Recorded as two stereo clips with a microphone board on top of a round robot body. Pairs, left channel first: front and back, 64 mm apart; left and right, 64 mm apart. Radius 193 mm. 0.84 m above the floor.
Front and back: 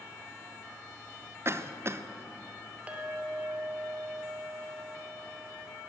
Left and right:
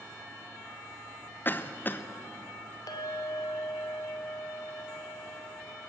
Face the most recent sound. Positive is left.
turn(degrees=110)